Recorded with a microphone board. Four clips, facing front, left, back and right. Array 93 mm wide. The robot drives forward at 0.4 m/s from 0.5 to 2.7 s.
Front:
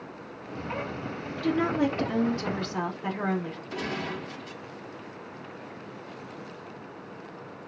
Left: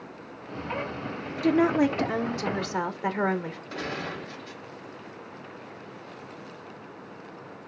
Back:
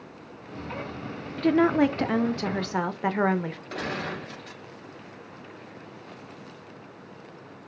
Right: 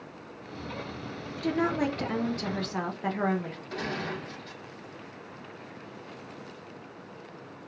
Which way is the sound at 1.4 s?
150° left.